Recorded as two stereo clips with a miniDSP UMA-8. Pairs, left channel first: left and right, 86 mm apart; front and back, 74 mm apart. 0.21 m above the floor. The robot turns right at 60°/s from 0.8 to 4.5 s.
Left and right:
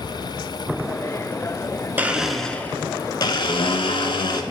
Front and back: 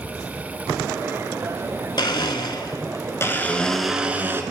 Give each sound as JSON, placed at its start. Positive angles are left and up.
{"t": 2.0, "sound": "a blender", "azimuth_deg": -20, "distance_m": 0.6}